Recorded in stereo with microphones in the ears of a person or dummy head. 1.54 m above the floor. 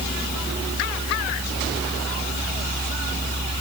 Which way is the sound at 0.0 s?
60° right (ahead or behind).